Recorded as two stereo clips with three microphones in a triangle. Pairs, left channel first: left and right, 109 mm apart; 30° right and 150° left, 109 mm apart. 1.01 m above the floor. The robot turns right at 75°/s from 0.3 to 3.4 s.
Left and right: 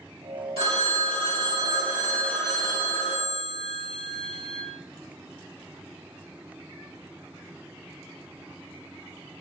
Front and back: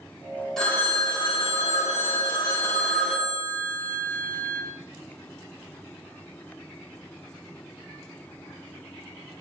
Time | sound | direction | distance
0.6 | a phone ringing | 115° right | 2.0 m